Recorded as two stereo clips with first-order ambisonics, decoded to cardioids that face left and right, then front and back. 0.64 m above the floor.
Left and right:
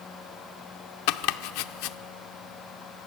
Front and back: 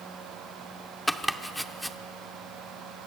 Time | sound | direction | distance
1.1 | chopping | 90° left | 0.6 m